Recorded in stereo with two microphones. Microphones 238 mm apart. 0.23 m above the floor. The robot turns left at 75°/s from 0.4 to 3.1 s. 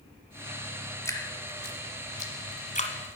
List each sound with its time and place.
1.1 s dripping: 10° left (ahead or behind), 1.4 m